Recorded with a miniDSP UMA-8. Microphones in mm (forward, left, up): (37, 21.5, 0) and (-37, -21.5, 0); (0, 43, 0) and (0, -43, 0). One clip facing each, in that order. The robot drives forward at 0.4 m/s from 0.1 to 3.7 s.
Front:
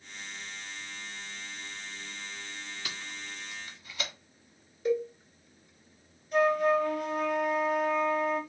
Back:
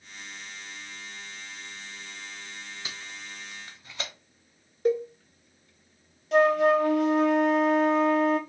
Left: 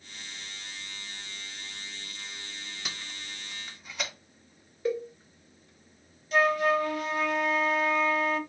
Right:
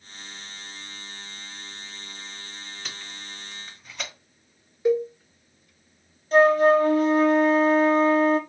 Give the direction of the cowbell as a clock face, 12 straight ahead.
5 o'clock.